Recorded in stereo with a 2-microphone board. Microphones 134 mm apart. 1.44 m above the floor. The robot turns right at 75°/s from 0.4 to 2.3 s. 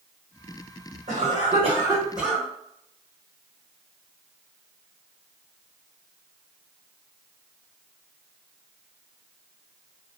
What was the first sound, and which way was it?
A cough, 90° right.